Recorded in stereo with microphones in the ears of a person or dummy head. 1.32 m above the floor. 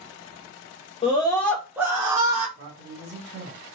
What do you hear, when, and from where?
1.0 s a scream: 30° left (ahead or behind), 0.8 m; by 2.5 s 35° right (ahead or behind), 0.8 m
2.6 s a man speaking: 45° right (ahead or behind), 2 m